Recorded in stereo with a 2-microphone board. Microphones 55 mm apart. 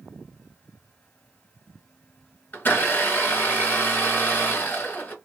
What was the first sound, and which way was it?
A blender, 35° left (ahead or behind).